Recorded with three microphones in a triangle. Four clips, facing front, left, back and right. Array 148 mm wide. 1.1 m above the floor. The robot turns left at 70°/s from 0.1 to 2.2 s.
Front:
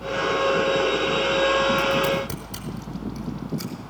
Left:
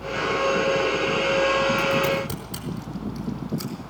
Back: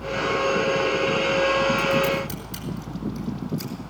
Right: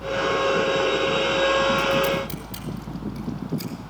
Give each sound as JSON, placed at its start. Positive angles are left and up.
{"t": 1.8, "sound": "scissors", "azimuth_deg": 55, "distance_m": 5.0}